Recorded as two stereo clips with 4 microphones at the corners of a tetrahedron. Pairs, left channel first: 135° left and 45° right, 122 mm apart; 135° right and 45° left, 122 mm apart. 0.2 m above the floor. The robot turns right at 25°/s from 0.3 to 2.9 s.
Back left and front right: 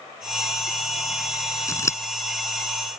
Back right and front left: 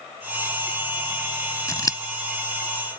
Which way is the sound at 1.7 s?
Straight behind.